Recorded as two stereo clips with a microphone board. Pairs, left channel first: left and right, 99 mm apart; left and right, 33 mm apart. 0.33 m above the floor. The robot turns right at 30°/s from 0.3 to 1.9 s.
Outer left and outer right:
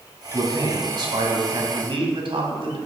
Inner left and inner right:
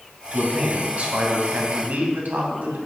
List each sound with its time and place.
0.3 s a man speaking: 140° right, 2.5 m; by 2.8 s 95° right, 2.5 m